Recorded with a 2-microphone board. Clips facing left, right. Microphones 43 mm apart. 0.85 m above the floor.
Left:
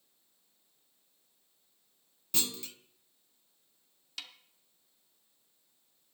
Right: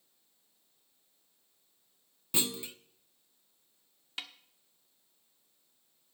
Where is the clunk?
20° right (ahead or behind), 0.6 m.